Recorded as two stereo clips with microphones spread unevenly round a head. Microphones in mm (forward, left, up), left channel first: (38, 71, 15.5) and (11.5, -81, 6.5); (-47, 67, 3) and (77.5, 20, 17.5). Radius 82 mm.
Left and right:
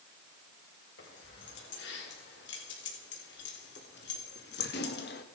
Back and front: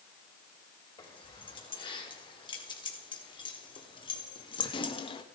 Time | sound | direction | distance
1.0 | keys jangling | 105° left | 6 m